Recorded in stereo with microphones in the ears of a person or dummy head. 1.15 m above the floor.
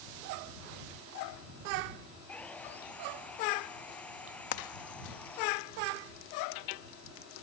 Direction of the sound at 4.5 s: 65° left (ahead or behind).